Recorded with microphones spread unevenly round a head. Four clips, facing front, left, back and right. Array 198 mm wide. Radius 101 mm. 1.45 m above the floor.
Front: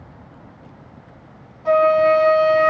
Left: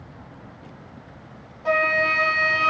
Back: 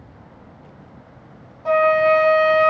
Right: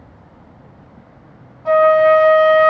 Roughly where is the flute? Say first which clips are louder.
Right 12 dB, front 1 dB; behind.